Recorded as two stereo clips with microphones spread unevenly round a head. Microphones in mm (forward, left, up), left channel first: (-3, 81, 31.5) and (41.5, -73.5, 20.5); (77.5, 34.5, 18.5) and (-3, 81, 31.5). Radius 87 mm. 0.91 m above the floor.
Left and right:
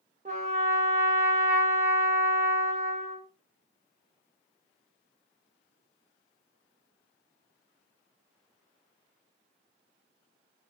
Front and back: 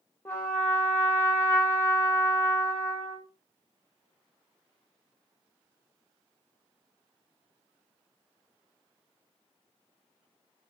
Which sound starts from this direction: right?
A trumpet, at 0.2 s.